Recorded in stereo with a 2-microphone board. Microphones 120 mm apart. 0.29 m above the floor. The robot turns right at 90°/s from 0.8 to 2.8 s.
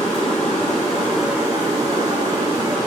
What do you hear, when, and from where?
0.0 s running water: 145° left, 2.5 m; by 2.9 s 35° right, 2.5 m